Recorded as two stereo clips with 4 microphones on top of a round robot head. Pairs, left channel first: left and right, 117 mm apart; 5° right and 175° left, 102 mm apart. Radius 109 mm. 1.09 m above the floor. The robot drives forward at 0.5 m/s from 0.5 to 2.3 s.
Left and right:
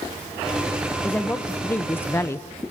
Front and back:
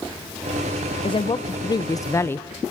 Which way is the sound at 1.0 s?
15° left.